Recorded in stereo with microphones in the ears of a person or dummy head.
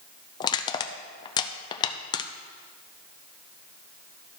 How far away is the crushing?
About 0.5 m.